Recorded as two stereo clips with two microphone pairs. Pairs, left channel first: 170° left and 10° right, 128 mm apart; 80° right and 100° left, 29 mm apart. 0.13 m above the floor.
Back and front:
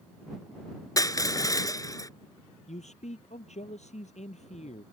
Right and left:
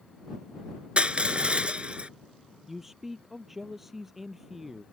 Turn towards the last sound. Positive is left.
turn(degrees=180)